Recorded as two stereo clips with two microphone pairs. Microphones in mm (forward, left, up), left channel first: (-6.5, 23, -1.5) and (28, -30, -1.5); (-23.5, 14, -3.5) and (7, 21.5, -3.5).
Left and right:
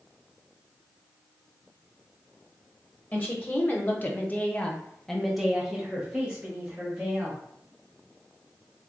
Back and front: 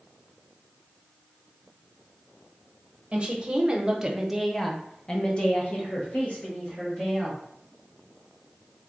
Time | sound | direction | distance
3.1 | a woman speaking | 65° left | 1.0 m